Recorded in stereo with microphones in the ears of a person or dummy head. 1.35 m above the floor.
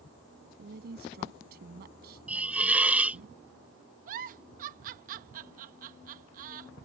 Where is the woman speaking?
65° right (ahead or behind).